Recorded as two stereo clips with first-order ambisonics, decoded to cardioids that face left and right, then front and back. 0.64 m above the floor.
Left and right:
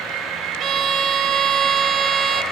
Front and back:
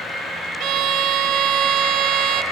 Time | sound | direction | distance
0.6 | a violin | 140° right | 1.0 m